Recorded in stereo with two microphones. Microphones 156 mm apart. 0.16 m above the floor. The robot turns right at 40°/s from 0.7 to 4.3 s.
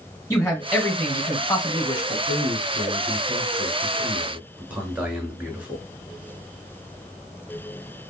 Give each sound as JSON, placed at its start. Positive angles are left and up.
{"t": 0.3, "sound": "a man speaking", "side_deg": 20, "distance_m": 1.6}
{"t": 2.3, "sound": "a man speaking", "azimuth_deg": -95, "distance_m": 1.7}